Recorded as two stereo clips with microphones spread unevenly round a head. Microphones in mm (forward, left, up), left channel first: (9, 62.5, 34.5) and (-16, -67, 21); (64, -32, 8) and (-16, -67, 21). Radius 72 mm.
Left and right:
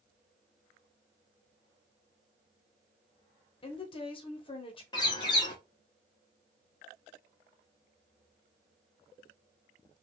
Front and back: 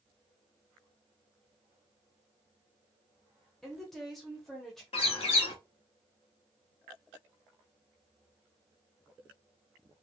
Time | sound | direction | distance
3.6 | a woman speaking | 100° left | 0.8 m
4.9 | a bird | 20° left | 0.9 m